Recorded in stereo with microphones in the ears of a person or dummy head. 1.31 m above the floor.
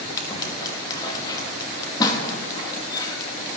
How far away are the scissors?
About 1.3 m.